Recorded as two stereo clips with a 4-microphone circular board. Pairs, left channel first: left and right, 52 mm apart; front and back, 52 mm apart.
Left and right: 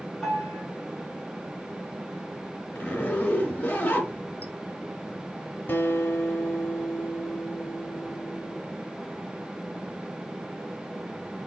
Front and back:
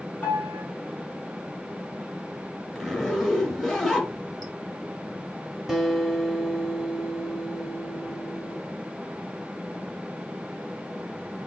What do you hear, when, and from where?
0.2 s a piano: straight ahead, 1.3 m
2.8 s a zipper: 80° left, 0.7 m
5.7 s a guitar: 95° left, 0.7 m